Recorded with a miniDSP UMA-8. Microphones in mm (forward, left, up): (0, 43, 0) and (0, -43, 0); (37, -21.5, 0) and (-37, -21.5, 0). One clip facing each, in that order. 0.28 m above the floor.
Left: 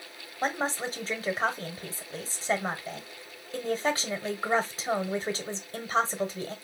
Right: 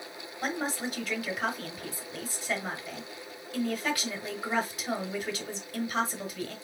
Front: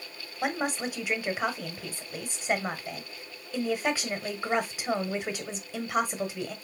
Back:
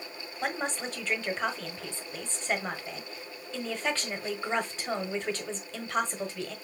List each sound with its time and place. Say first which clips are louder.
0.4 s a woman speaking: left 3 dB, front 3 dB; 70° left, 1.2 m